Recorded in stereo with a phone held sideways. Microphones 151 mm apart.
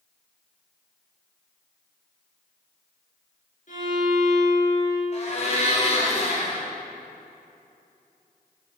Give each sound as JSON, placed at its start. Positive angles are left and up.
{"t": 3.7, "sound": "a violin", "side_deg": 60, "distance_m": 3.5}
{"t": 5.1, "sound": "a blender", "side_deg": 50, "distance_m": 2.5}